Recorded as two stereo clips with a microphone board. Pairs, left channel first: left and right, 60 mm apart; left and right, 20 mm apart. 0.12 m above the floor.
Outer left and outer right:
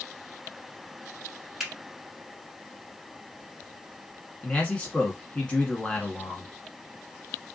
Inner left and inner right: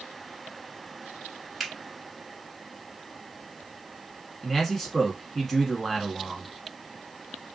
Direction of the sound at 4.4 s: 20° left (ahead or behind).